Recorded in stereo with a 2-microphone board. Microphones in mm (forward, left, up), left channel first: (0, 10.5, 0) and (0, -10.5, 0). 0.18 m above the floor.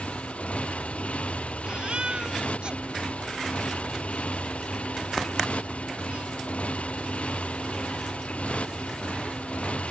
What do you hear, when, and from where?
0.0 s a motorcycle: 80° left
1.6 s a baby crying: 55° right (ahead or behind)